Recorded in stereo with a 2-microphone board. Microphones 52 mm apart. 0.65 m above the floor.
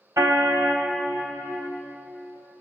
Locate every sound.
0.2 s a car horn: 80° right, 2 m